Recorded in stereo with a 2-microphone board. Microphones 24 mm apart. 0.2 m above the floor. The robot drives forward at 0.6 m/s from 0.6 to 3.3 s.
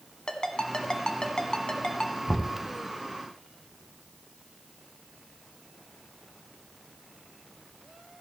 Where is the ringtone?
35° left (ahead or behind), 1.0 m; by 2.2 s 30° left (ahead or behind), 1.2 m.